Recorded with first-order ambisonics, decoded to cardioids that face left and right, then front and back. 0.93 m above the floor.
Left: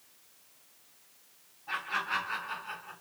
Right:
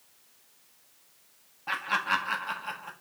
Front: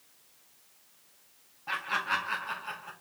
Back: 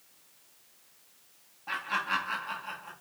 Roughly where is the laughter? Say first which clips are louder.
Right 5 dB, even; right.